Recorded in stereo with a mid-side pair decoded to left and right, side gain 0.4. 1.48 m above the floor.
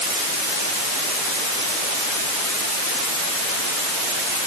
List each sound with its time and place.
Only background noise.